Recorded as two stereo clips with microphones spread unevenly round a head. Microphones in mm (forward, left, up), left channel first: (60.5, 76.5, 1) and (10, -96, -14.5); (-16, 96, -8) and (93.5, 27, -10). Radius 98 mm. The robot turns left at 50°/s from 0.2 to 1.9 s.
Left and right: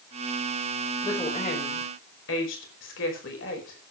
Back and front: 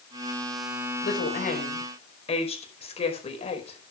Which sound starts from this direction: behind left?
A woman speaking, at 1.0 s.